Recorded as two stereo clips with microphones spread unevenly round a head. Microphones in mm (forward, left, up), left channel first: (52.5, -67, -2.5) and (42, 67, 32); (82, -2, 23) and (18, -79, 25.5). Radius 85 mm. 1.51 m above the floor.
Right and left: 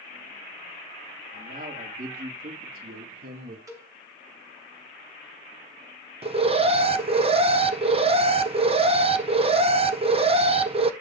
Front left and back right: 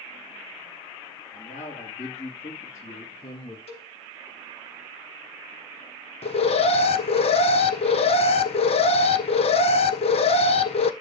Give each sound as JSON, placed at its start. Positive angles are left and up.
{"t": 1.3, "sound": "a man speaking", "azimuth_deg": 75, "distance_m": 3.5}
{"t": 3.7, "sound": "a cowbell", "azimuth_deg": 35, "distance_m": 3.0}
{"t": 6.2, "sound": "an alarm", "azimuth_deg": 45, "distance_m": 1.0}